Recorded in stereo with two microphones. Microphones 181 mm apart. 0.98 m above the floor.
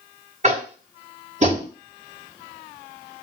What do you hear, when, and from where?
0.4 s tapping: 40° right (ahead or behind), 1.7 m